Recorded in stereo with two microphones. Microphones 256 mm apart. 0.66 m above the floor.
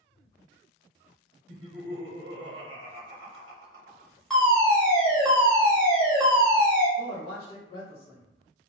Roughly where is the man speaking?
Left.